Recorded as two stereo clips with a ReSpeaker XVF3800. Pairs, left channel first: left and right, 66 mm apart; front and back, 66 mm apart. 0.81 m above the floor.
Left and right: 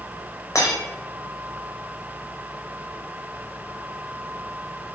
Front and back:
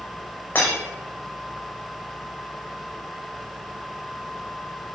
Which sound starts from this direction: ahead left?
Breaking glass, at 0.6 s.